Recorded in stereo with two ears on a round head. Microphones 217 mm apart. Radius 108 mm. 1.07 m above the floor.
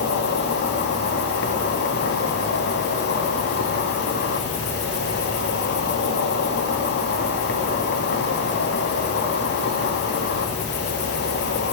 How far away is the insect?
About 1.7 m.